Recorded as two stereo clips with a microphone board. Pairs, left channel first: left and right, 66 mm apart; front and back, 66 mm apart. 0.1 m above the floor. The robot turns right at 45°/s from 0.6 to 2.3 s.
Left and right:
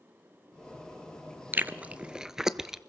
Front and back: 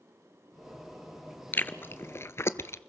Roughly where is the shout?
No shout in this recording.